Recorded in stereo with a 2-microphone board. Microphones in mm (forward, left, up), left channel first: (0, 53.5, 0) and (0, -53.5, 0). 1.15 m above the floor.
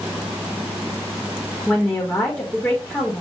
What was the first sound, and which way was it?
A woman speaking, 15° left (ahead or behind).